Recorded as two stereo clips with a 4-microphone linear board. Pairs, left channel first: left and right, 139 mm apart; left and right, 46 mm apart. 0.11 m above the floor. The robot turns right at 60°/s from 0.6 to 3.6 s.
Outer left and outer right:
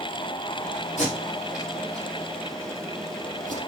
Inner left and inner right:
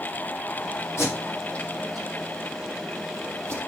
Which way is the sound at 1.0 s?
60° left (ahead or behind).